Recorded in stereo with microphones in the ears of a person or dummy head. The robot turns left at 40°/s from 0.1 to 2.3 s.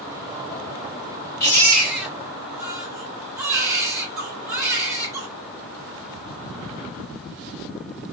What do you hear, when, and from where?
1.4 s a baby crying: 25° left, 2 m; by 5.3 s 10° right, 2 m